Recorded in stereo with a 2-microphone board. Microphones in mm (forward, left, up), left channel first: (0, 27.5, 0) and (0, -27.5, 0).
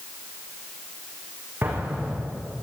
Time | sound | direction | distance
1.6 | an explosion | 35° right (ahead or behind) | 6 m